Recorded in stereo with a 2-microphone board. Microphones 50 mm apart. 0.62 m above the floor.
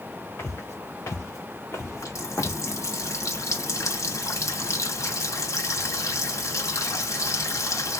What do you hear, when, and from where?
0.4 s footsteps: 55° left (ahead or behind), 3.5 m; by 2.6 s 60° left (ahead or behind), 1.4 m
1.8 s a running tap: 75° left (ahead or behind), 1.9 m